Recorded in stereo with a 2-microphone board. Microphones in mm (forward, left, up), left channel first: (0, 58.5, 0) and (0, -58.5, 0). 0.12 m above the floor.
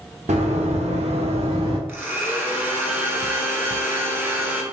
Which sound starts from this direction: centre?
A blender, at 1.9 s.